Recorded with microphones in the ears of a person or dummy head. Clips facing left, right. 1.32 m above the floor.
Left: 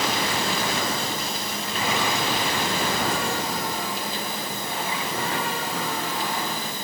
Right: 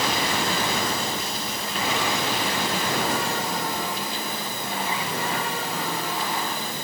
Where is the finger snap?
No finger snap in this recording.